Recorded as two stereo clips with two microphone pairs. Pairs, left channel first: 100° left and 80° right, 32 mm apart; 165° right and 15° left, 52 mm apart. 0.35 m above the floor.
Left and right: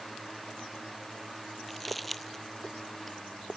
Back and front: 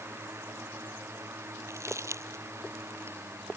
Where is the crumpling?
10° left.